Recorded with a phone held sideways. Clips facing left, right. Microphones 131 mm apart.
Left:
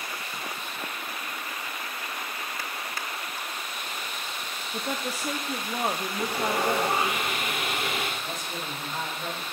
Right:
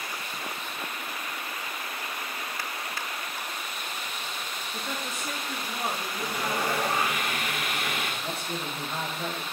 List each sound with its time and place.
4.7 s a woman speaking: 35° left (ahead or behind), 0.6 m
6.2 s sawing: 25° left (ahead or behind), 1.5 m
8.2 s a man speaking: 65° right (ahead or behind), 2 m